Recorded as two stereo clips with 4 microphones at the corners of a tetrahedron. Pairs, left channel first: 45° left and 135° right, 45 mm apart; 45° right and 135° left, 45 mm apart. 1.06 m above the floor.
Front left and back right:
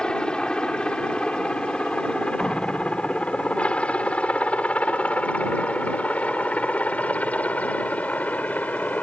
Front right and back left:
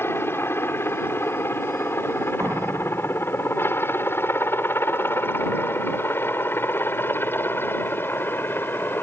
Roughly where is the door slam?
Behind left.